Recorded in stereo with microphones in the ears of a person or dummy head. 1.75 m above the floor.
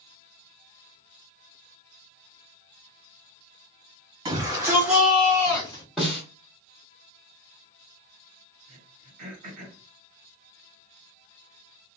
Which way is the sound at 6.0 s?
5° left (ahead or behind).